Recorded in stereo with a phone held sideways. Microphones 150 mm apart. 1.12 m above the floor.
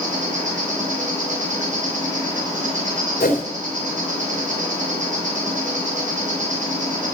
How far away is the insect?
About 5.5 m.